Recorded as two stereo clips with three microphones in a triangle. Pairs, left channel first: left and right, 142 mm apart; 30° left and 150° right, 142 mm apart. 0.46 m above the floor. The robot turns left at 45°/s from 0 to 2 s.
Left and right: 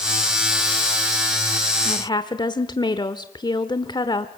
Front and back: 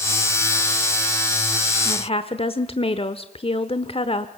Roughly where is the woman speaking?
Ahead left.